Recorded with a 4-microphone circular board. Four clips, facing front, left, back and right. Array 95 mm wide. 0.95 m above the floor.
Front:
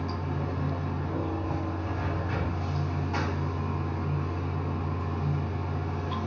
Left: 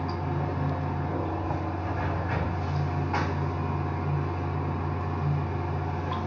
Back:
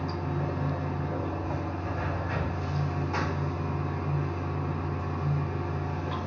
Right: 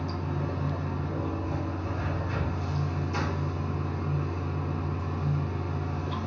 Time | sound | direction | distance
0.0 | running water | 95° left | 1.6 m